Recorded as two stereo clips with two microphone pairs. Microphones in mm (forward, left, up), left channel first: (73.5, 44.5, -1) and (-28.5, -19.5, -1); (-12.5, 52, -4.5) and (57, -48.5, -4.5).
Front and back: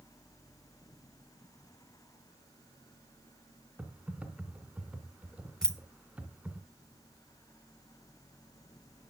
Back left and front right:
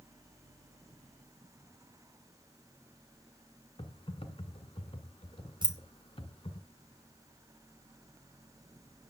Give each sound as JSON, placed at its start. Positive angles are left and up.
{"t": 3.8, "sound": "typing on a keyboard", "azimuth_deg": 135, "distance_m": 1.2}
{"t": 5.6, "sound": "keys jangling", "azimuth_deg": -50, "distance_m": 1.3}